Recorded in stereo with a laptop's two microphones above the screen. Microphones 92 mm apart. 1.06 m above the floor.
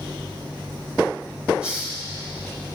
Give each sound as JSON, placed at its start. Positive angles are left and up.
{"t": 1.6, "sound": "a hiss", "side_deg": -10, "distance_m": 3.5}